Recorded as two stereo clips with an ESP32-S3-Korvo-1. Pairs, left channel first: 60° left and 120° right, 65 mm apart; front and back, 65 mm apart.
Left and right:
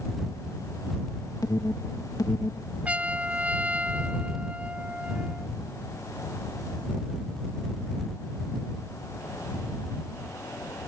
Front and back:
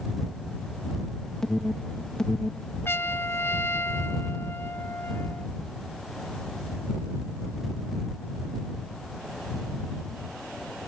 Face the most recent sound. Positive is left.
turn(degrees=-50)